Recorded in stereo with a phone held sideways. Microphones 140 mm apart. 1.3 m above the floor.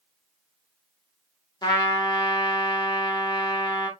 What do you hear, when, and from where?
1.6 s a trumpet: 30° left (ahead or behind), 1.2 m